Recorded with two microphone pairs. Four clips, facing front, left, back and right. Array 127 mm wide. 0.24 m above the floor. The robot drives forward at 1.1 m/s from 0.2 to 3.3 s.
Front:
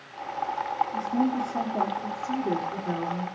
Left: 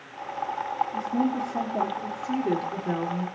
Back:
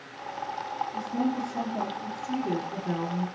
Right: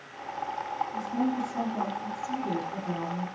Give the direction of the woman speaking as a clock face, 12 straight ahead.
11 o'clock.